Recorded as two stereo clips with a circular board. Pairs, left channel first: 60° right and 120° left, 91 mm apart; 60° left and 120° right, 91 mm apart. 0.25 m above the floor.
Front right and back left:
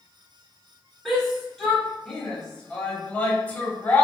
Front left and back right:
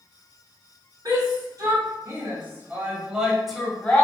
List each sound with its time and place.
1.1 s a shout: 150° right, 1.4 m; by 4.0 s 5° right, 1.0 m